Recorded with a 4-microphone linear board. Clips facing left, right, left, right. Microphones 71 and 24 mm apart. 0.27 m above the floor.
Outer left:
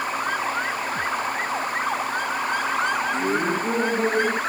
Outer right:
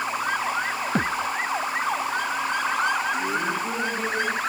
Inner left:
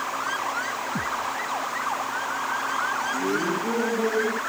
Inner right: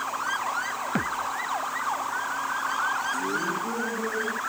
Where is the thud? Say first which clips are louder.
Even, inner right 1 dB; 90° right.